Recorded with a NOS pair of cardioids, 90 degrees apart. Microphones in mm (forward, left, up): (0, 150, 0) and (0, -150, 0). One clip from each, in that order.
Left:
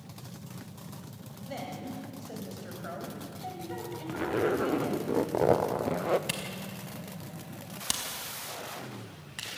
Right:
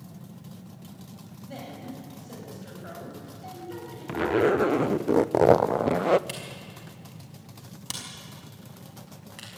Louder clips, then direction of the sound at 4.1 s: Right 6 dB; 30° right.